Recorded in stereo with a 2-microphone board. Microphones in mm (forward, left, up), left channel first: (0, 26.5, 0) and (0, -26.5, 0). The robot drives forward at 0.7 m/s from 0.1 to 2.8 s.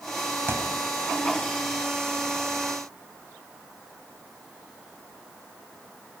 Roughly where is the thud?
Right.